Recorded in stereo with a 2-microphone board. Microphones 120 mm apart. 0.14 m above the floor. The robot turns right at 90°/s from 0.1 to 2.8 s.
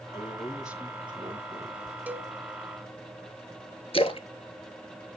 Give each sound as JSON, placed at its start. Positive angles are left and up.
{"t": 0.1, "sound": "a man speaking", "azimuth_deg": 140, "distance_m": 3.0}
{"t": 2.1, "sound": "a cowbell", "side_deg": -15, "distance_m": 0.6}
{"t": 3.9, "sound": "a splash", "side_deg": 55, "distance_m": 0.8}